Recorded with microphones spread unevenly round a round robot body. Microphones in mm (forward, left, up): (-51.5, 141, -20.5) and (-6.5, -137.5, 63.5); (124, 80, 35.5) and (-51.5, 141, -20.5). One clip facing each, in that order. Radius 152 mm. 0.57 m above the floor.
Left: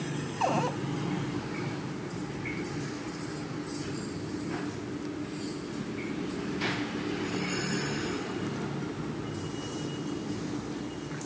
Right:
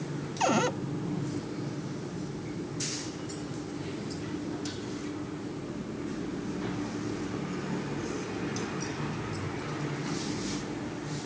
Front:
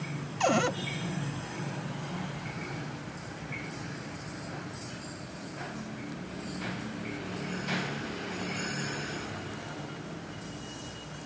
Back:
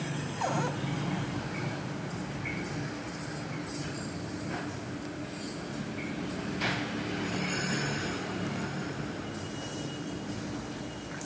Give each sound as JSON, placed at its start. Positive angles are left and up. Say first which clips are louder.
{"t": 0.4, "sound": "a cupboard door", "louder": "right 3 dB, front 6 dB", "azimuth_deg": -25}